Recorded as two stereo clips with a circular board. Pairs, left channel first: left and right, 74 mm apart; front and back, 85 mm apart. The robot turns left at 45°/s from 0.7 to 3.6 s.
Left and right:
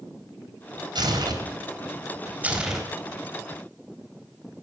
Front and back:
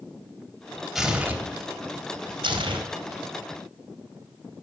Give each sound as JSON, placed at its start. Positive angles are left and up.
{"t": 0.9, "sound": "tearing paper", "azimuth_deg": -95, "distance_m": 3.0}